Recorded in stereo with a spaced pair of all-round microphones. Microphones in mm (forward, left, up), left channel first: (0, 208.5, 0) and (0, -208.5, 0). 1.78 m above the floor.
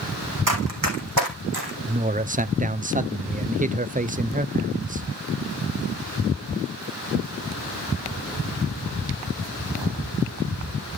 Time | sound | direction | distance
0.5 | running footsteps | 45° right (ahead or behind) | 3.5 m
1.9 | a man speaking | 20° right (ahead or behind) | 0.5 m